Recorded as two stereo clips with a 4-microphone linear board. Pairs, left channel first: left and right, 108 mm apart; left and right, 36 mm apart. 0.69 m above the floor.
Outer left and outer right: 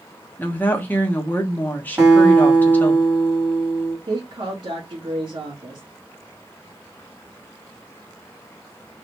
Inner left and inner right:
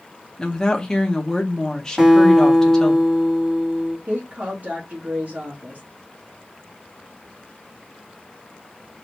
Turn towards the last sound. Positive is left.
turn(degrees=-45)  # may be behind; listen again after turning